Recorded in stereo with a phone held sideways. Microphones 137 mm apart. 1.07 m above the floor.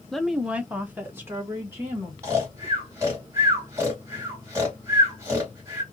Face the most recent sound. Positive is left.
turn(degrees=-20)  # may be behind; listen again after turning